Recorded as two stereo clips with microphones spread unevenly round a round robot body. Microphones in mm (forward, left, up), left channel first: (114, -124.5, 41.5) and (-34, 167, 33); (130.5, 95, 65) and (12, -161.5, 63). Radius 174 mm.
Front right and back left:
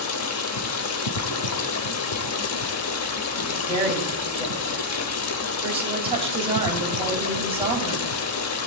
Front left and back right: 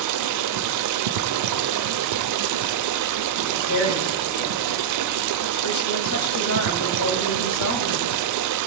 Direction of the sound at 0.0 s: 110° right.